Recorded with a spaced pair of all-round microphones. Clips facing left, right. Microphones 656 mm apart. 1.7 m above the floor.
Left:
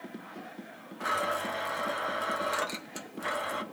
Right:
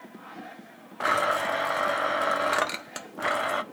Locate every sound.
1.0 s a blender: 80° right, 0.8 m